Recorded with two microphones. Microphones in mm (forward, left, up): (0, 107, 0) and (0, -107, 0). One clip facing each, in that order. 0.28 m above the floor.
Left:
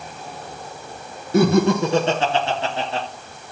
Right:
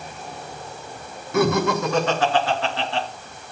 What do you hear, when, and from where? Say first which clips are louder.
1.3 s laughter: left 4 dB; 30° left (ahead or behind), 2.5 m; by 3.1 s 25° left (ahead or behind), 3.5 m